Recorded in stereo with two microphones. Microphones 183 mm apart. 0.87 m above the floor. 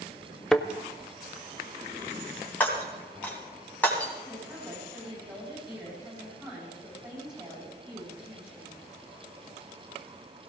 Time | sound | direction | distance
0.5 | a thud | 5° left (ahead or behind) | 0.6 m
2.6 | breaking glass | 10° left (ahead or behind) | 3 m
4.2 | a woman speaking | 25° right (ahead or behind) | 8 m